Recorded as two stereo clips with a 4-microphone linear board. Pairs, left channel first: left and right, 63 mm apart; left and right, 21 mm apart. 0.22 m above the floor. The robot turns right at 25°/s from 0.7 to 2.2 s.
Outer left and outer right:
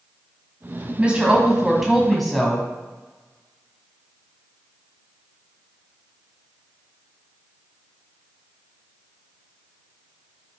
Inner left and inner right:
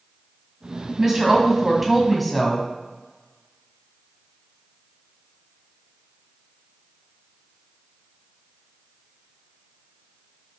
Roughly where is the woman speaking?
Ahead right.